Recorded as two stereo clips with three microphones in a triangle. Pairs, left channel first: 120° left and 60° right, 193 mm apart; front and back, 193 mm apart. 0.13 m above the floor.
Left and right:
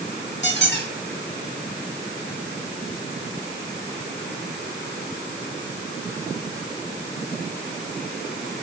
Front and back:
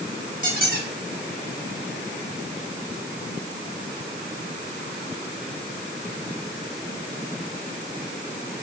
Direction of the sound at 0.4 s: 140° left.